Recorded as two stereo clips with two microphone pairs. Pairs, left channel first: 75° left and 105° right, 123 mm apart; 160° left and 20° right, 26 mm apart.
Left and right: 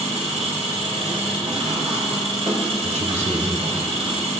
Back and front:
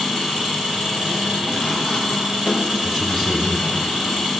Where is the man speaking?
100° right, 4 m.